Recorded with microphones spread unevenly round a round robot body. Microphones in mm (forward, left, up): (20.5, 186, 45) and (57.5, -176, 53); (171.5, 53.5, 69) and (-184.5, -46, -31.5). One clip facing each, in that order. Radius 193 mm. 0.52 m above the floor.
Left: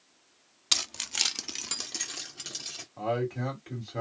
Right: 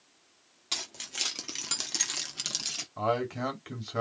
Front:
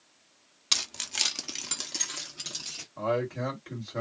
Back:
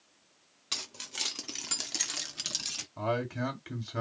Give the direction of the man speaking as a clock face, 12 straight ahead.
4 o'clock.